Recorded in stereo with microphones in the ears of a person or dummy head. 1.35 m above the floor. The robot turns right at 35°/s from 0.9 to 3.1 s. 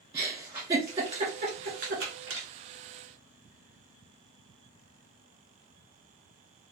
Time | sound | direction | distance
0.1 | a giggle | 15° right (ahead or behind) | 1.7 m